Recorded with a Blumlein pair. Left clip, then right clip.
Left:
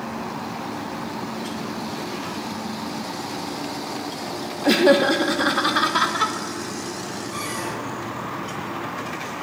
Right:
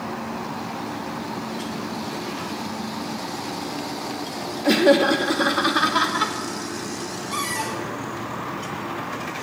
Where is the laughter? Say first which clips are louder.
Even; 5° left, 0.9 m; by 6.3 s straight ahead, 1.8 m.